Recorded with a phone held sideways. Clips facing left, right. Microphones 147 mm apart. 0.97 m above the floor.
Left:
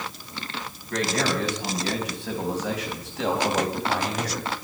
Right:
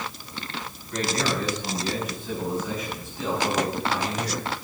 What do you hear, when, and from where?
0.9 s a man speaking: 75° left (ahead or behind), 6.5 m; by 4.5 s 60° left (ahead or behind), 5.5 m